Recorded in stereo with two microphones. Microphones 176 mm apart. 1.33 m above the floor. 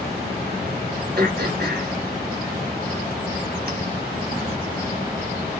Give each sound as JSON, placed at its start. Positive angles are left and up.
{"t": 1.2, "sound": "throat clearing", "side_deg": -65, "distance_m": 1.1}